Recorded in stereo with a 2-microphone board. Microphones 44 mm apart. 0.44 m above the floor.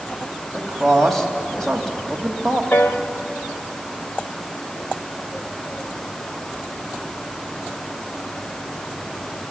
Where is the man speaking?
5° left (ahead or behind), 2.5 m.